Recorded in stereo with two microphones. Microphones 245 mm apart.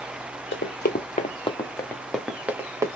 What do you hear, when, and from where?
0.5 s running footsteps: 50° left (ahead or behind), 1.0 m; by 3.0 s 15° right (ahead or behind), 1.3 m